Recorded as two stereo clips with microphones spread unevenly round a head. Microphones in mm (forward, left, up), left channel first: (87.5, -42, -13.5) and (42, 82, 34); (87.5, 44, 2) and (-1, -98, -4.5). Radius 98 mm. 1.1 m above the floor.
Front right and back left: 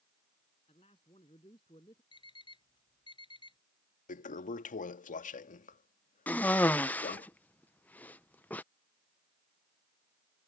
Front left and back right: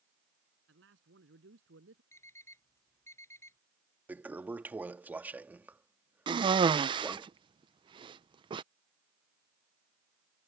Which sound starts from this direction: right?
A cough, at 6.3 s.